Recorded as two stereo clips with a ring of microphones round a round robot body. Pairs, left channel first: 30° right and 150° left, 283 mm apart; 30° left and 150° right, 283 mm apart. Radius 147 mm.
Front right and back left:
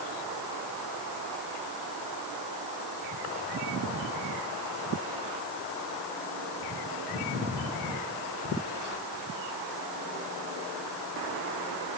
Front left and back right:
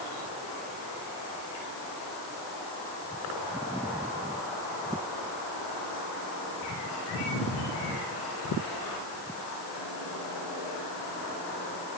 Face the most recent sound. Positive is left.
No sound to turn to.